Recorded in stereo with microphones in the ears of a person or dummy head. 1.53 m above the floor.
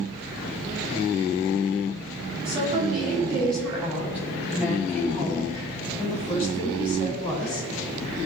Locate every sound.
2.5 s a woman speaking: 25° right (ahead or behind), 7 m; by 7.7 s 15° left (ahead or behind), 11 m